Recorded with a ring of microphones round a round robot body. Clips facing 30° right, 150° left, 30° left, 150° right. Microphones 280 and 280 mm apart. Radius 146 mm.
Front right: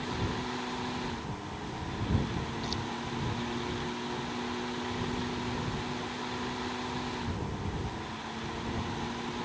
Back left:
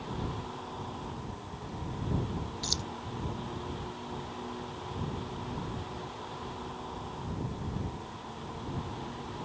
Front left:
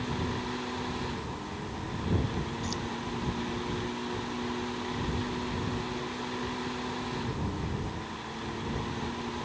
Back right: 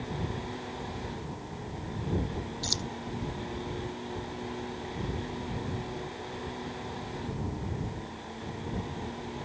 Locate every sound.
2.6 s keys jangling: 175° left